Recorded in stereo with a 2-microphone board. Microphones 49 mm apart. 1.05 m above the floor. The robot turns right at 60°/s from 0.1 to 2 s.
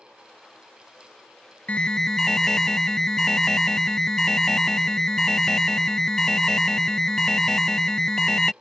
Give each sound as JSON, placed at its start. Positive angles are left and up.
{"t": 1.7, "sound": "an alarm", "side_deg": 25}